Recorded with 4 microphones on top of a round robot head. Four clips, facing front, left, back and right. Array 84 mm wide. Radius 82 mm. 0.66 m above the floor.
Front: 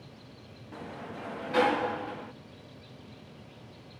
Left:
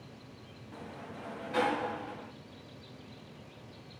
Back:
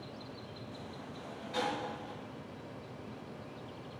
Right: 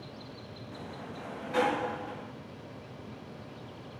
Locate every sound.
0.7 s a sliding door: 10° right, 0.9 m